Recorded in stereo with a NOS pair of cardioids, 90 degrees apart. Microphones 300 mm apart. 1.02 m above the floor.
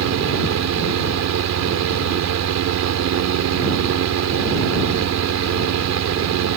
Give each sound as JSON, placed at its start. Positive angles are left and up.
{"t": 0.0, "sound": "a fan", "azimuth_deg": -60}